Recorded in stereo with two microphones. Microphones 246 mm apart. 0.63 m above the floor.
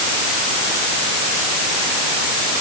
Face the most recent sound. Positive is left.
No sound to turn to.